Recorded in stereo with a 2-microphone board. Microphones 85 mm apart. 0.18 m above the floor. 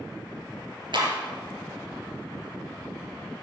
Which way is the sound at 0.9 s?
70° right (ahead or behind).